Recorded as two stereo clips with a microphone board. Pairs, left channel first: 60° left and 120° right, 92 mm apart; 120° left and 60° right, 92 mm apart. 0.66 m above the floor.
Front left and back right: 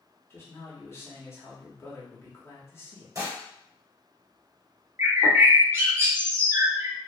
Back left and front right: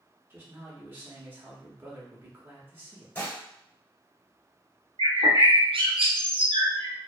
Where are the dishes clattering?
170° right, 1.1 m.